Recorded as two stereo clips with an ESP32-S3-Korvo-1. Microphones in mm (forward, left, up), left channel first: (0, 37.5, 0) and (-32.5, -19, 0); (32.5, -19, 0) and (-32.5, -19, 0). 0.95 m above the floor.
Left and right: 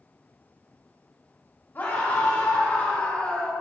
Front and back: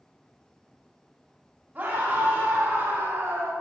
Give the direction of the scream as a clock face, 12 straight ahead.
8 o'clock.